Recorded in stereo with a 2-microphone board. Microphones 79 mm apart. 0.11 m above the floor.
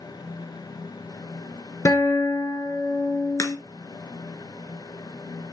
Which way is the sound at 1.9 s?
35° left (ahead or behind).